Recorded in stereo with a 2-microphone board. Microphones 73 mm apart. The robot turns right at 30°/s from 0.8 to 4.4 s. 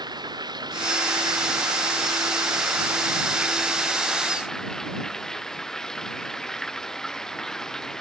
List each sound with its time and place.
0.0 s running water: 100° right; by 8.0 s 10° left